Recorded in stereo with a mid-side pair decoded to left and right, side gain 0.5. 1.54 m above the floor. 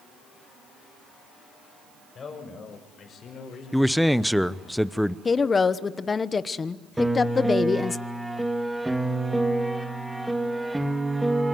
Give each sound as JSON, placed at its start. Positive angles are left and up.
{"t": 2.1, "sound": "a man speaking", "azimuth_deg": 40, "distance_m": 6.0}
{"t": 3.7, "sound": "a man speaking", "azimuth_deg": 0, "distance_m": 0.8}
{"t": 5.2, "sound": "a woman speaking", "azimuth_deg": 30, "distance_m": 1.0}
{"t": 7.0, "sound": "a piano", "azimuth_deg": -10, "distance_m": 1.9}